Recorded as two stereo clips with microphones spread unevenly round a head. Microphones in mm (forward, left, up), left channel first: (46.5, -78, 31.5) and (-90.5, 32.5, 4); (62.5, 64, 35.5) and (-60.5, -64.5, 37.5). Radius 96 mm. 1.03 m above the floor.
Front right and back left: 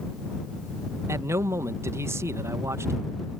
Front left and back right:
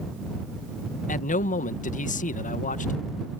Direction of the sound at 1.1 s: 75° left.